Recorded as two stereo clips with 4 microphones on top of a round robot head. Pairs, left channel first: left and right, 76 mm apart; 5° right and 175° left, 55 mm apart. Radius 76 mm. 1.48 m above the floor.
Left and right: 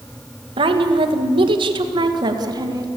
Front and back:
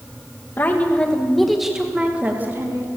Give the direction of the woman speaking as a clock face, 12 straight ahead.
2 o'clock.